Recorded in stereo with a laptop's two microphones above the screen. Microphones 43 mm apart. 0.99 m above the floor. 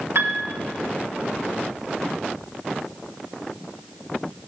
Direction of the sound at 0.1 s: 65° right (ahead or behind).